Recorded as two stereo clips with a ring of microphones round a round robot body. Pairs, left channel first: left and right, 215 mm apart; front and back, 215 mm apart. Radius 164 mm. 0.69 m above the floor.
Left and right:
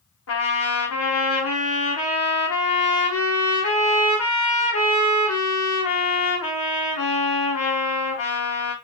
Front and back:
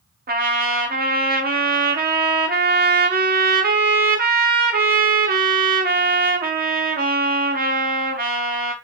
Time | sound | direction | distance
0.3 | a trumpet | 130° left | 0.8 m